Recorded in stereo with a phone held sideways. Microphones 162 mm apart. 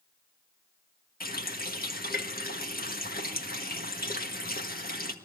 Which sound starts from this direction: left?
A running tap, at 1.2 s.